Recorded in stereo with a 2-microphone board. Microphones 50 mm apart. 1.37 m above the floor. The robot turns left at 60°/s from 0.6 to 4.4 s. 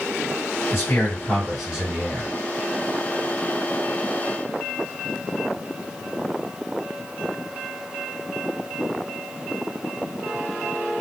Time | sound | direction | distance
0.7 | a man speaking | 50° left | 1.3 m